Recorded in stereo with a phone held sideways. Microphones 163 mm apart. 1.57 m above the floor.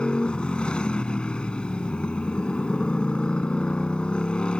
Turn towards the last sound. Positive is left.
turn(degrees=5)  # may be behind; listen again after turning